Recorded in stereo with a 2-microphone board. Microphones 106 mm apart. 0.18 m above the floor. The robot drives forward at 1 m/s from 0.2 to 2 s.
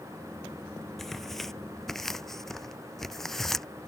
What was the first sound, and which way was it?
Tearing paper, centre (ahead or behind).